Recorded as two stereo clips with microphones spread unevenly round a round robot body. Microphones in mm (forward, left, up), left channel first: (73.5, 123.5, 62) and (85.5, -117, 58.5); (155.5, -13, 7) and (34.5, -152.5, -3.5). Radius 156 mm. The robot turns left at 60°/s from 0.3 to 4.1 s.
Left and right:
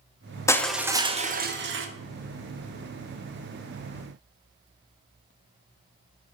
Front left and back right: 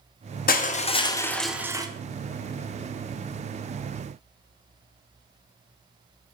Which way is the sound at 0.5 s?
15° left.